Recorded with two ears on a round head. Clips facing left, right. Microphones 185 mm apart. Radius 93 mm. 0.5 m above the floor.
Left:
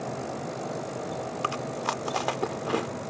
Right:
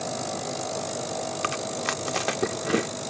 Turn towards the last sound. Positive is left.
turn(degrees=-25)  # may be behind; listen again after turning